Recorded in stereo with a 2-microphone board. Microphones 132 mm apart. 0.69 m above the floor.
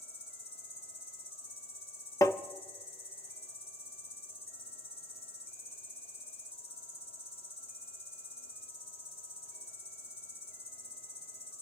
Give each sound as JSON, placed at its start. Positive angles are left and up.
{"t": 0.0, "sound": "an insect", "side_deg": 50, "distance_m": 2.5}
{"t": 2.2, "sound": "tapping", "side_deg": 25, "distance_m": 0.7}